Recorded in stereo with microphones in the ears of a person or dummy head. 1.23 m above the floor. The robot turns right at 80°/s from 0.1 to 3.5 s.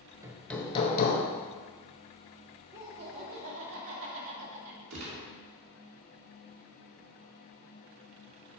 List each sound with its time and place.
0.2 s hammering: 15° right, 1.1 m; by 1.2 s 65° left, 1.1 m
2.7 s laughter: 170° right, 2.5 m; by 4.8 s 105° right, 2.5 m
4.9 s a gunshot: 85° right, 2.5 m